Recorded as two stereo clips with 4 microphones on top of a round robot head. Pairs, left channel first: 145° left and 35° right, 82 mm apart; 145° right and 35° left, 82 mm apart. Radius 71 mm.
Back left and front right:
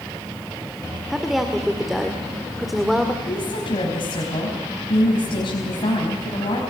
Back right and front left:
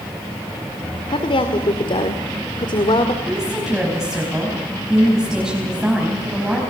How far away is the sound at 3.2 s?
About 4.5 m.